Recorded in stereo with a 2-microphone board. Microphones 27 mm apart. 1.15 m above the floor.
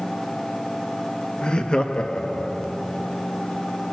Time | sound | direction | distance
1.4 | laughter | 35° left (ahead or behind) | 1.3 m